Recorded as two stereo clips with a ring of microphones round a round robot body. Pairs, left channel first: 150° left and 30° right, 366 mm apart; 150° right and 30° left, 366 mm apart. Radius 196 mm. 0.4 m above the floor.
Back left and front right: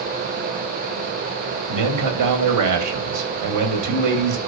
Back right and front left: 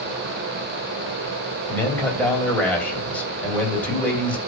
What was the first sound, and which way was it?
A man speaking, 65° right.